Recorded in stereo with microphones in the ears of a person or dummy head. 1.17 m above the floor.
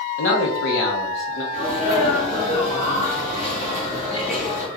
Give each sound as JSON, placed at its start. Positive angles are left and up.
{"t": 0.2, "sound": "a man speaking", "side_deg": 65, "distance_m": 1.0}
{"t": 1.5, "sound": "a sneeze", "side_deg": 30, "distance_m": 1.1}